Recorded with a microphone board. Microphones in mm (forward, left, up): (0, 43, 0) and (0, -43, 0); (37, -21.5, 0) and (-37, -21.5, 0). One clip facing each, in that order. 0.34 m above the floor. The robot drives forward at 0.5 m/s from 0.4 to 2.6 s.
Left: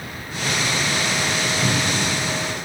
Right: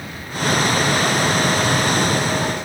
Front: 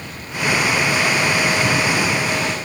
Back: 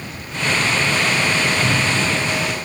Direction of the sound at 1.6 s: 125° left.